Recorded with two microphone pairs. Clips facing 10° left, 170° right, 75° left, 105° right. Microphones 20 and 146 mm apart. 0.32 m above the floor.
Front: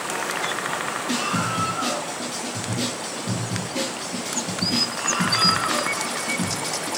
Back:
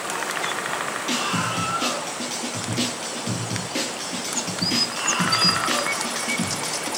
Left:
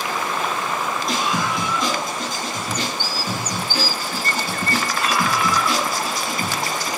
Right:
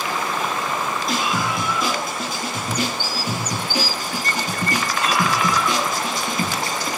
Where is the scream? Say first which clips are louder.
Even, even; 170° left, 8.5 m; by 6.9 s 165° right, 7.5 m.